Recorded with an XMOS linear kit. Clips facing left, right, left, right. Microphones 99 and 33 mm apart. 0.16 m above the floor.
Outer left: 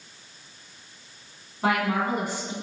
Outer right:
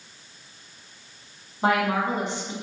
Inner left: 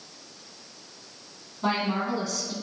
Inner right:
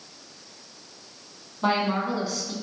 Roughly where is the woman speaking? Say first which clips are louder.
Outer right 2 dB, inner right 2 dB; right.